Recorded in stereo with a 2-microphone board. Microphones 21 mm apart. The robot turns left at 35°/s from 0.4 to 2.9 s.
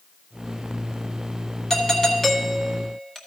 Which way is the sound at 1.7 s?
20° left (ahead or behind).